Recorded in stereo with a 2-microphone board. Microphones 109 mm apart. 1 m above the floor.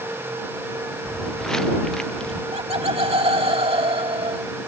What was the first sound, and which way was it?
Footsteps, 5° left (ahead or behind).